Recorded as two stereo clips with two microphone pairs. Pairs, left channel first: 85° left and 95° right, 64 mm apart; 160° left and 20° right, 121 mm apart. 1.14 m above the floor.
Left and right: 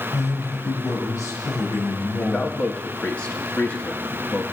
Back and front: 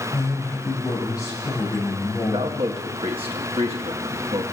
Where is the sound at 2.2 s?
15° left, 1.7 m.